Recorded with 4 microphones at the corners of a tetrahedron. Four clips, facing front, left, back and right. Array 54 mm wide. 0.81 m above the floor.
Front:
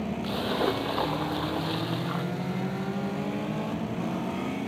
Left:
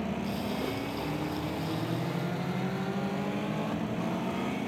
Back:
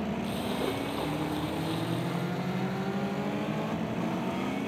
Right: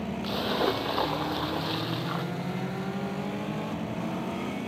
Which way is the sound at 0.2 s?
55° right.